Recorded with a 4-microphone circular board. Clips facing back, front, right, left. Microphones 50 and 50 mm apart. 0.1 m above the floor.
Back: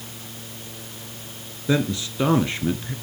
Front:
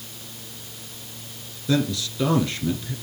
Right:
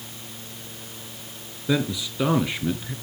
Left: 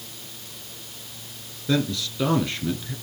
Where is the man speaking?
150° right, 1.6 m.